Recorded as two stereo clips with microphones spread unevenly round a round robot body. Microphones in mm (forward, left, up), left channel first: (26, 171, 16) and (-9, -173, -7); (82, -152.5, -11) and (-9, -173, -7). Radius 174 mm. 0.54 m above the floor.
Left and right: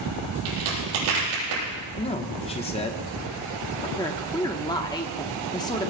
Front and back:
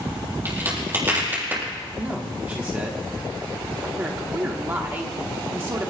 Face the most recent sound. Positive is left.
turn(degrees=155)